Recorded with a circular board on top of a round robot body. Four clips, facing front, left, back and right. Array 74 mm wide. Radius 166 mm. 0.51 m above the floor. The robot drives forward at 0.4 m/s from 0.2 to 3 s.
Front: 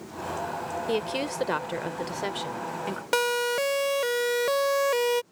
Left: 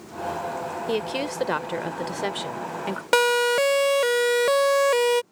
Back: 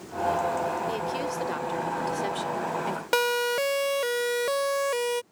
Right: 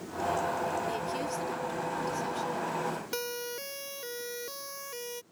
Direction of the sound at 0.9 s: 60° left.